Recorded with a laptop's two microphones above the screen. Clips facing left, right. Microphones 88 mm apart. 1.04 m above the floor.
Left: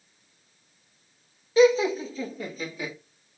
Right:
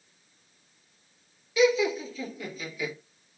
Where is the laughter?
35° left (ahead or behind), 0.7 m.